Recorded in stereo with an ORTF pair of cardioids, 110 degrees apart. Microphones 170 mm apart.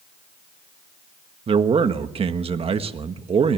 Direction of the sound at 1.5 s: 35° right.